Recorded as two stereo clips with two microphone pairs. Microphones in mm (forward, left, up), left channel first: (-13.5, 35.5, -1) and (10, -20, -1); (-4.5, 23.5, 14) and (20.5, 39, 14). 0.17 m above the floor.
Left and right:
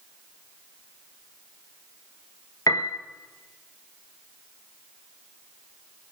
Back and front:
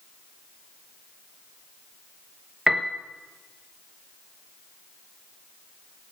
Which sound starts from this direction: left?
A piano, at 2.7 s.